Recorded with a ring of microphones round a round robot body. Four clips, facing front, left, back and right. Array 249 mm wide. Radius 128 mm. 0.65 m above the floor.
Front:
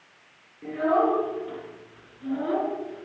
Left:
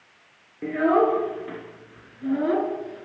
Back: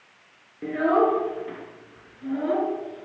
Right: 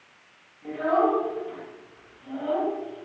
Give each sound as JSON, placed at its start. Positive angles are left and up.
{"t": 0.6, "sound": "a child speaking", "azimuth_deg": 120, "distance_m": 6.0}